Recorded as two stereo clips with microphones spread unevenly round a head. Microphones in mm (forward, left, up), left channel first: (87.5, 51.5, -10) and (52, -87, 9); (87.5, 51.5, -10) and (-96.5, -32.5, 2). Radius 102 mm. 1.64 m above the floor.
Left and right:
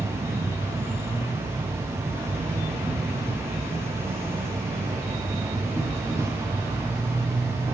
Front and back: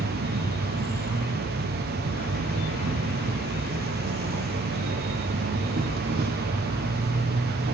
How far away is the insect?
About 0.7 m.